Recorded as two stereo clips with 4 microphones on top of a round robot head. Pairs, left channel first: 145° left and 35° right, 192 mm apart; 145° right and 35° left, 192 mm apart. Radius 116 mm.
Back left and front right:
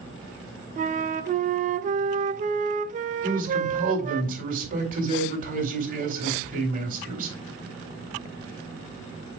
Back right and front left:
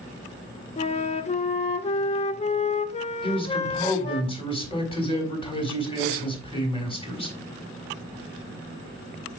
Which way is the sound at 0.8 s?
85° right.